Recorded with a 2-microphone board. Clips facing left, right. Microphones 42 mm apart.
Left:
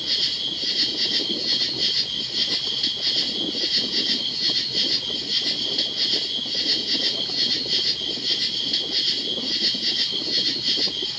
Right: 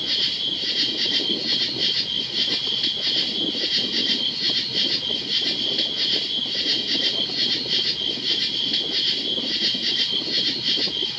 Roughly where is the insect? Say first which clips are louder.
Right 2 dB; centre.